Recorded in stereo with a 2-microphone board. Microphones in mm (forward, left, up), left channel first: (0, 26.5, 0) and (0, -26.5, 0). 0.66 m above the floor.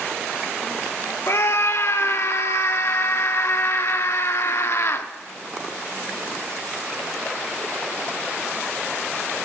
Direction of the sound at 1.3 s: 55° left (ahead or behind).